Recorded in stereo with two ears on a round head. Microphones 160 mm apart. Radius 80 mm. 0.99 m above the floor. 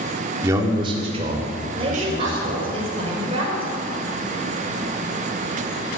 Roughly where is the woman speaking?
Right.